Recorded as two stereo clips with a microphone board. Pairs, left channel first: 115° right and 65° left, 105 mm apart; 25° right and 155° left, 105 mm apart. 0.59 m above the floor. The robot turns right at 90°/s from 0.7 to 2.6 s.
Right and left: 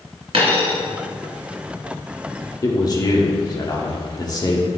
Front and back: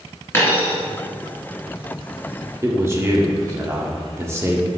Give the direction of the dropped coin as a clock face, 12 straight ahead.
11 o'clock.